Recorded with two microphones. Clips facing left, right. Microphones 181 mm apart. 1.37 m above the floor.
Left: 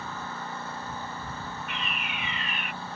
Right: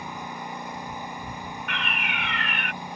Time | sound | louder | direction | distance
0.0 | a lawn mower | right 2 dB | 15° right (ahead or behind) | ?
1.7 | a fire alarm | right 3 dB | 75° right (ahead or behind) | ?